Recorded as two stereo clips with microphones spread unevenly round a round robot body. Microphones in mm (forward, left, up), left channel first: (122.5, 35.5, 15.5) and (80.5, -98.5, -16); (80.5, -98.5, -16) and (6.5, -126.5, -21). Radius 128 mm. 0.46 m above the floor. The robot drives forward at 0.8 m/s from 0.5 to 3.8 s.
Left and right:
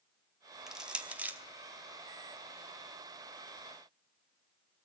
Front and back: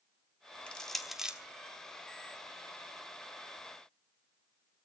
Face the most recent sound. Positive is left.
turn(degrees=-165)